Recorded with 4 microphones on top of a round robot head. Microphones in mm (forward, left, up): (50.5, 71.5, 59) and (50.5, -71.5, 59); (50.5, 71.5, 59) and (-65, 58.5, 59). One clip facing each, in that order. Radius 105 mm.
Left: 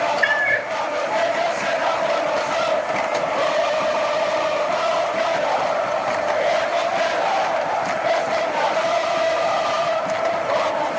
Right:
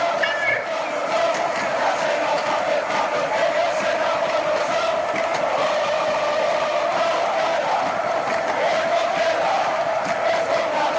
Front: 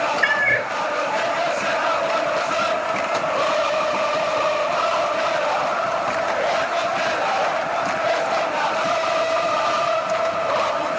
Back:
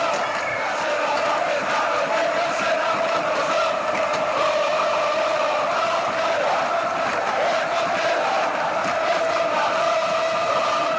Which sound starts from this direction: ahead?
A cat meowing, at 0.2 s.